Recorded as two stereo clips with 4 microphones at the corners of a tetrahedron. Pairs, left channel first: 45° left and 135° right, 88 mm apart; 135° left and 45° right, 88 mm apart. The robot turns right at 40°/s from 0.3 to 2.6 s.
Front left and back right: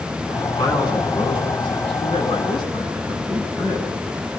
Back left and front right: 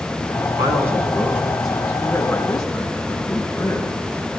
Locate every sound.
0.6 s a man speaking: straight ahead, 9.5 m; by 4.0 s 85° left, 9.5 m